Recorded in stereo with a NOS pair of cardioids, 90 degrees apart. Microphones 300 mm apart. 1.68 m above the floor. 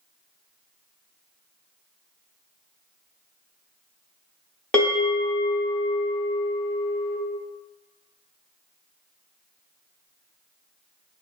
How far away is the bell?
About 1.0 m.